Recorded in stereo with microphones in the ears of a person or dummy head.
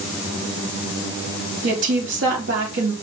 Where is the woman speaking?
60° right (ahead or behind), 3.5 m.